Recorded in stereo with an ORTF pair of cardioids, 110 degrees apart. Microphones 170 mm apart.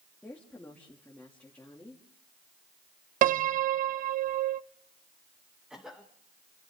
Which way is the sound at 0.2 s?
10° left.